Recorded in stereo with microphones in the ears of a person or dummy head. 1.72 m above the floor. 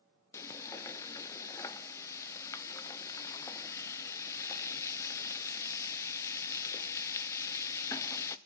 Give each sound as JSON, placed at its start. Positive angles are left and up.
{"t": 0.3, "sound": "frying", "side_deg": 15, "distance_m": 1.0}